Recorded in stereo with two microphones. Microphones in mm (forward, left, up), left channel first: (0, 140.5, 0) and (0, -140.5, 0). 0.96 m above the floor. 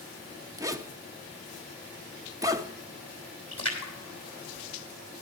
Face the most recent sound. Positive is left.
turn(degrees=55)  # may be behind; listen again after turning